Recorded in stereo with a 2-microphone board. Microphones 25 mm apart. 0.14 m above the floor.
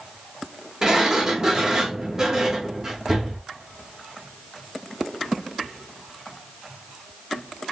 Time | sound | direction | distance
0.8 | a sliding door | 25° right (ahead or behind) | 3.5 m